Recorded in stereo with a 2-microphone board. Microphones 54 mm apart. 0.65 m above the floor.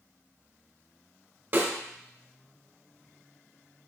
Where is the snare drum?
40° right (ahead or behind), 1.3 m.